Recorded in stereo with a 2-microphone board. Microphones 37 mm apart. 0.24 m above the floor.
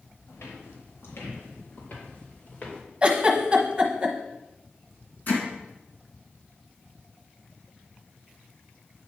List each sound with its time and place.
0.3 s footsteps: 85° left, 2.5 m; by 2.8 s 35° left (ahead or behind), 3 m
3.0 s a giggle: 25° right (ahead or behind), 1.1 m
5.3 s hammering: 45° left (ahead or behind), 2.5 m